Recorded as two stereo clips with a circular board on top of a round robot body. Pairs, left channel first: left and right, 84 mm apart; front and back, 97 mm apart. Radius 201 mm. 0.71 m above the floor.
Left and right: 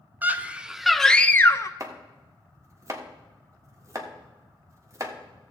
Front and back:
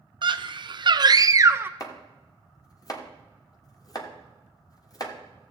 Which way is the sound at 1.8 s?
45° right.